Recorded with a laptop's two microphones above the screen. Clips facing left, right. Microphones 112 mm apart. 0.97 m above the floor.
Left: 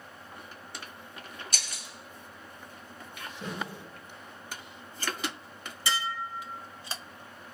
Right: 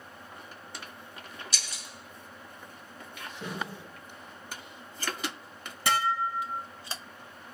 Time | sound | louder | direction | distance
1.5 | breaking glass | even | 55° left (ahead or behind) | 1.7 m
3.4 | a snare drum | even | 10° right (ahead or behind) | 6.5 m
5.9 | dishes clattering | right 6 dB | 55° right (ahead or behind) | 0.7 m